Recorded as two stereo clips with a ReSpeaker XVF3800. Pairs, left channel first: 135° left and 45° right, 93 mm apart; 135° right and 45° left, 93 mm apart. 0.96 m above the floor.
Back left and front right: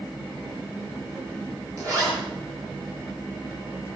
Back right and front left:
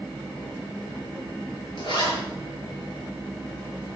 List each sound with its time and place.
1.8 s a zipper: 100° right, 7 m